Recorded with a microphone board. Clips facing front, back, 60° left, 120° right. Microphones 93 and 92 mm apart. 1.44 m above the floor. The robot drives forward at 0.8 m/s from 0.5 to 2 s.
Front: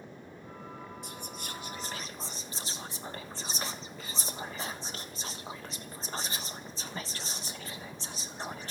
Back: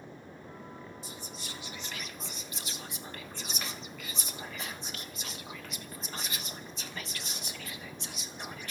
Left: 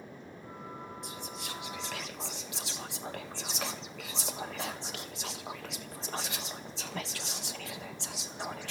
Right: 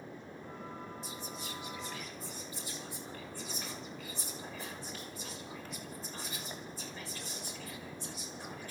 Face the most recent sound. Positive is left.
turn(degrees=60)